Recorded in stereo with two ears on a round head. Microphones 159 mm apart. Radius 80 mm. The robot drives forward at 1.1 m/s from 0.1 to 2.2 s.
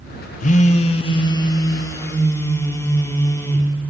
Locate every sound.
0.4 s a phone buzzing: 45° left (ahead or behind), 1.0 m; by 3.7 s 15° left (ahead or behind), 2.5 m